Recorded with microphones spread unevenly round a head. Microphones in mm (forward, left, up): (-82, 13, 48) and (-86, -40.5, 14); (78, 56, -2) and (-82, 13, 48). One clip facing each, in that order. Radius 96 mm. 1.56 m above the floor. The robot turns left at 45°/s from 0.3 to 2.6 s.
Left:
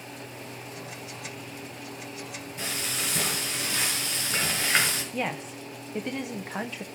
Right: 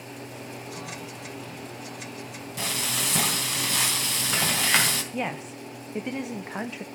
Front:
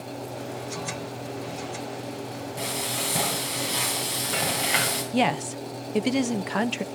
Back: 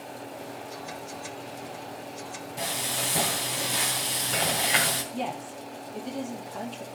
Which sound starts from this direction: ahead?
A woman speaking, at 5.1 s.